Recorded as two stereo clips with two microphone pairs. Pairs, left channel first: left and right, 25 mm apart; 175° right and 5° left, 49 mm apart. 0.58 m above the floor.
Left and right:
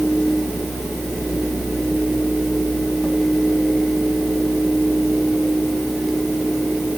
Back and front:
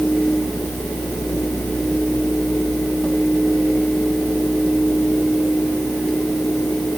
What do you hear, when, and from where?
Only background noise.